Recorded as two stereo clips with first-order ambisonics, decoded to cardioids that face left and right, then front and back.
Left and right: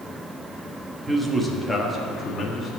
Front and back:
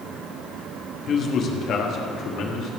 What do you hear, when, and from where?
1.1 s a man speaking: 20° right, 1.2 m; by 2.8 s 25° left, 1.7 m